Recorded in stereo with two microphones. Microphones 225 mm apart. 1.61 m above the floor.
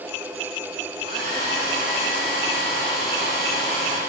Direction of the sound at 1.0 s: 45° left (ahead or behind).